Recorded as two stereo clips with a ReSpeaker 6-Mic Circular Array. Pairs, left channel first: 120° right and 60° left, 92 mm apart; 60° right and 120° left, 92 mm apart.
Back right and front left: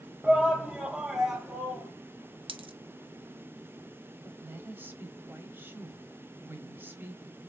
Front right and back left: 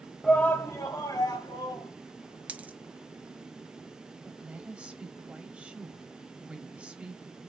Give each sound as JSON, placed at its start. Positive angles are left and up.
{"t": 0.2, "sound": "a shout", "azimuth_deg": 5, "distance_m": 0.9}
{"t": 2.5, "sound": "a dropped coin", "azimuth_deg": 45, "distance_m": 0.8}
{"t": 4.2, "sound": "a woman speaking", "azimuth_deg": 60, "distance_m": 1.0}